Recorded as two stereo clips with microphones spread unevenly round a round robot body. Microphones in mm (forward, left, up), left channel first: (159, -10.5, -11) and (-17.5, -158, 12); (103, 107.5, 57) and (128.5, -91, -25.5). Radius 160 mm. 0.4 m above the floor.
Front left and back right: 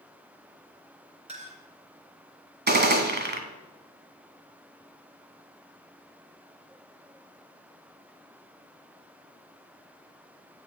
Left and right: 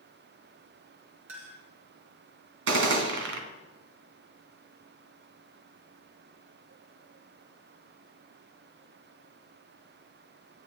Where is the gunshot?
95° right, 2 m.